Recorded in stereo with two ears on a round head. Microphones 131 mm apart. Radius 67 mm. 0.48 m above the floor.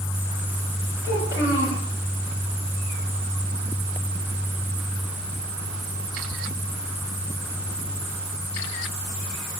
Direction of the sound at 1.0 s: 20° right (ahead or behind).